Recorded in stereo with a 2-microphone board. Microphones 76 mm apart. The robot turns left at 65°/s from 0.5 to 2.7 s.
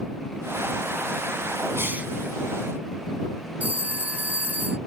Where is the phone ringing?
20° right (ahead or behind).